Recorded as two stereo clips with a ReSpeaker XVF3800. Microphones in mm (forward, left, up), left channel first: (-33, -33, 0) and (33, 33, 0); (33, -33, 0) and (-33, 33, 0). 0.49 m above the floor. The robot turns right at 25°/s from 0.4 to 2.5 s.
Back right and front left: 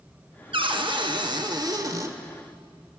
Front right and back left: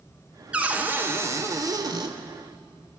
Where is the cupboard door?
60° left, 0.6 m; by 2.1 s 100° left, 0.6 m.